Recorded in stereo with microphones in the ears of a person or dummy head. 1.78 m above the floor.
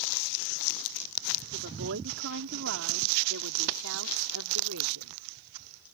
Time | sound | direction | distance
1.5 | a woman speaking | 60° right (ahead or behind) | ?